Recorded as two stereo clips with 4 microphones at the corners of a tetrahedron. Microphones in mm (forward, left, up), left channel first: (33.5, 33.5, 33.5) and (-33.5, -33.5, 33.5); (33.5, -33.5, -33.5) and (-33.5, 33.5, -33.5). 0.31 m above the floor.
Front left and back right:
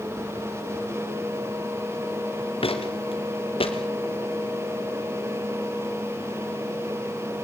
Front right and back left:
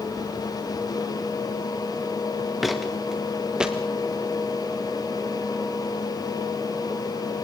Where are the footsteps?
45° left, 2.0 m; by 3.8 s 55° left, 2.5 m.